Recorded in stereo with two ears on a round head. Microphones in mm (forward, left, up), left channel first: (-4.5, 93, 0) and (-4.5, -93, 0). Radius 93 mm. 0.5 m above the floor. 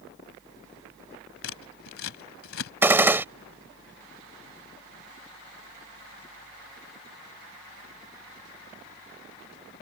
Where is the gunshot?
10° right (ahead or behind).